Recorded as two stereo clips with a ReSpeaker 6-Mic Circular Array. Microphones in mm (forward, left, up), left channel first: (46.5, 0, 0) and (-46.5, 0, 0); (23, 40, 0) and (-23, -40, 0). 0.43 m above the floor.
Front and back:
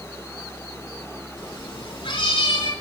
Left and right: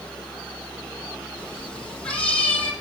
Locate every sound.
1.4 s a cat meowing: 20° right, 9.5 m; by 2.7 s 15° right, 8 m